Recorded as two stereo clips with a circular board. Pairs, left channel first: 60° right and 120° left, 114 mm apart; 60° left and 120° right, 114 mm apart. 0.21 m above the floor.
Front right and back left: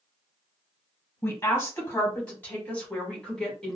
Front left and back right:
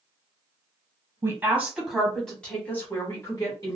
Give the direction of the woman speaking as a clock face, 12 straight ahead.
3 o'clock.